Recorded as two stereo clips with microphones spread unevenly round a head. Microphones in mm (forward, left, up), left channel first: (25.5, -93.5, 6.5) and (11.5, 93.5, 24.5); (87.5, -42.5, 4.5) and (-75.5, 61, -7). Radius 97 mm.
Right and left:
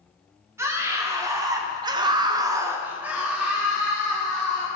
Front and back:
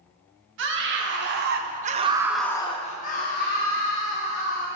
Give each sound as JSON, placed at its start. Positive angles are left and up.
{"t": 0.6, "sound": "a scream", "azimuth_deg": 170, "distance_m": 1.4}